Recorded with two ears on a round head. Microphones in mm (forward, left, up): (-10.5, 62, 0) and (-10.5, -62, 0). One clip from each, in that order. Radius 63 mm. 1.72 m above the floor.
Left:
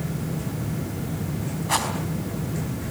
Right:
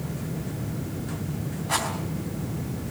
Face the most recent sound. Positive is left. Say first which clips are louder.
# left 2 dB
turn(degrees=15)  # may be behind; listen again after turning